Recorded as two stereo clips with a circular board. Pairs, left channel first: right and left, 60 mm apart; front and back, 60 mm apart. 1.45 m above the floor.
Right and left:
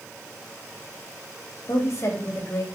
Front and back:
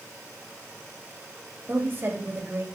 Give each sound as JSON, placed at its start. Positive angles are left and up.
{"t": 1.7, "sound": "a woman speaking", "azimuth_deg": -125, "distance_m": 3.5}